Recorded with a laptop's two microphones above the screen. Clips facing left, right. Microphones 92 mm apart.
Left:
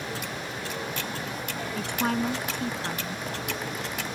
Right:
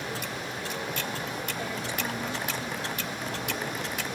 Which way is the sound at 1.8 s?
60° left (ahead or behind).